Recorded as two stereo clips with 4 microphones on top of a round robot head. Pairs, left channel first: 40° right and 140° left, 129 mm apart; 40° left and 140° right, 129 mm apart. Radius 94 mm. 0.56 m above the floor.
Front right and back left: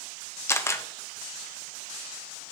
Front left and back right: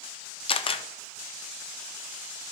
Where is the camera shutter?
25° left, 0.7 m.